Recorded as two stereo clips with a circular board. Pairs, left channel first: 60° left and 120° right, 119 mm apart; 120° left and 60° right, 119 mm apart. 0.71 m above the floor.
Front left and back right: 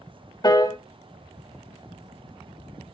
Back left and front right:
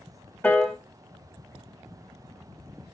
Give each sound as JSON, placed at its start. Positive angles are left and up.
{"t": 0.4, "sound": "a piano", "azimuth_deg": 55, "distance_m": 0.6}